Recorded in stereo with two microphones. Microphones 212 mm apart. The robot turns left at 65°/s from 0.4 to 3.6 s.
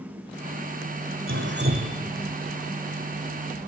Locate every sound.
1.3 s dripping: 105° right, 3 m; by 2.0 s 150° right, 3 m